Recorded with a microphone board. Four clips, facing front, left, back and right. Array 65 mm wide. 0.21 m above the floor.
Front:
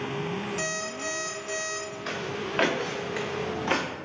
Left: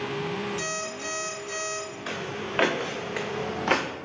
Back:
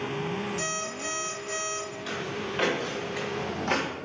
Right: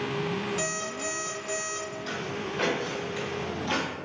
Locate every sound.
0.6 s an alarm clock: 60° right, 2.5 m
2.1 s footsteps: 50° left, 1.8 m; by 3.9 s 80° left, 1.3 m